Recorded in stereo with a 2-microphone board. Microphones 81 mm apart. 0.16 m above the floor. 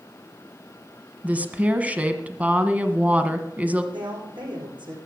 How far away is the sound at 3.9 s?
About 8.5 m.